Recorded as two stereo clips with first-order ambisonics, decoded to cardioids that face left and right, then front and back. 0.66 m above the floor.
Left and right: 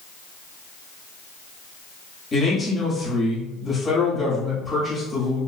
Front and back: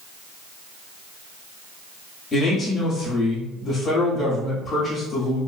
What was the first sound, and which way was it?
A man speaking, 50° left.